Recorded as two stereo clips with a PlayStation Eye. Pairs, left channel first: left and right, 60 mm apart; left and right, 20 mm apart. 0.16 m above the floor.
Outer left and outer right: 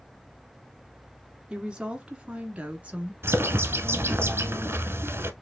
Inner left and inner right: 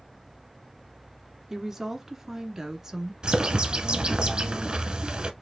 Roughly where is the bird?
Right.